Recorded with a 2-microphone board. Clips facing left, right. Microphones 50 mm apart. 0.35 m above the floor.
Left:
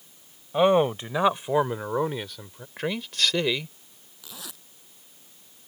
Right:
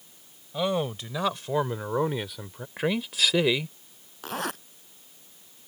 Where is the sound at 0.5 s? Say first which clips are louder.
Left 8 dB; 35° left (ahead or behind); by 2.7 s 15° right (ahead or behind).